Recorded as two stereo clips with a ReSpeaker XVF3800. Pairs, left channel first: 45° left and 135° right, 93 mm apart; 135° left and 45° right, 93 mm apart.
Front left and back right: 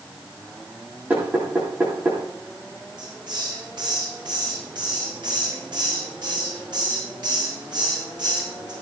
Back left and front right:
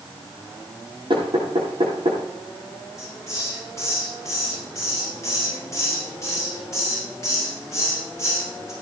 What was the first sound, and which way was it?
Knocking, 60° right.